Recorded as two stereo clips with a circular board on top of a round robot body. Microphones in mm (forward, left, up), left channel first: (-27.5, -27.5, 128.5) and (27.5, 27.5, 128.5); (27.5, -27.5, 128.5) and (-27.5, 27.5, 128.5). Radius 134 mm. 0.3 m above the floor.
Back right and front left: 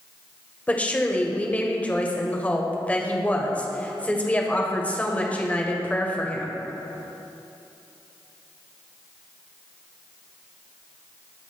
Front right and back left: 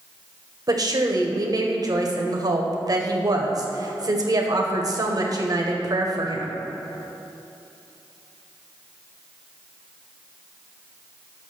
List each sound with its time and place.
0.7 s a woman speaking: 155° left, 2 m